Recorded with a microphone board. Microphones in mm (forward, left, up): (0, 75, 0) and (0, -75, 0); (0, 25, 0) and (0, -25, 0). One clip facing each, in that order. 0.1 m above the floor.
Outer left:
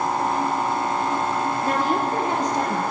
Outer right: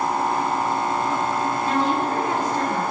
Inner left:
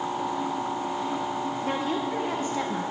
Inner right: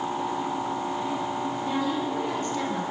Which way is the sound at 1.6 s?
45° left (ahead or behind).